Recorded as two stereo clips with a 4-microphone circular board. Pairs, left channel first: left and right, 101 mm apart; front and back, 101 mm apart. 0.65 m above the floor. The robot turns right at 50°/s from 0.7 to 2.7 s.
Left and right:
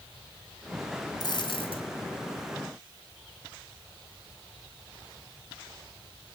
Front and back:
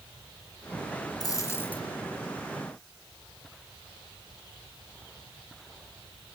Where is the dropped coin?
45° left, 1.9 m; by 1.8 s 80° left, 1.9 m.